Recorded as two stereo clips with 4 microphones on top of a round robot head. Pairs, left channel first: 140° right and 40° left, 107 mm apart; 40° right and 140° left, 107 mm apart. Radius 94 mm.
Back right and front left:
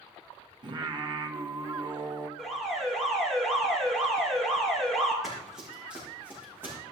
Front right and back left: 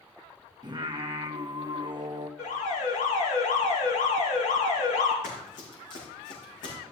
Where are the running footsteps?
50° right, 4.5 m; by 6.8 s 30° right, 5.5 m.